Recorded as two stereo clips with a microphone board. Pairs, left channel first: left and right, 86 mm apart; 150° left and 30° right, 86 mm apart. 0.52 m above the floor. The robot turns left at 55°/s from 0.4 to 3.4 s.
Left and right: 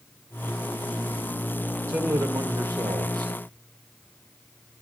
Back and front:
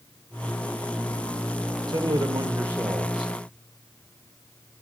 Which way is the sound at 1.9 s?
35° right.